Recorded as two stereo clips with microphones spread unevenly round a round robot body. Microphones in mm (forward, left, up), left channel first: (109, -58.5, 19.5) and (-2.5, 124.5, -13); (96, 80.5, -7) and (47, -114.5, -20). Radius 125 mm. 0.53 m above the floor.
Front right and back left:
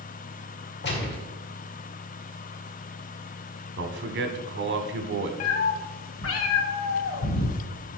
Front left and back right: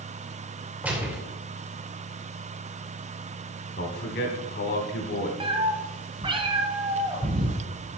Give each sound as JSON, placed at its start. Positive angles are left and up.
{"t": 0.8, "sound": "a gunshot", "azimuth_deg": -25, "distance_m": 2.5}
{"t": 3.8, "sound": "a man speaking", "azimuth_deg": 120, "distance_m": 1.3}
{"t": 5.4, "sound": "a cat meowing", "azimuth_deg": -40, "distance_m": 1.7}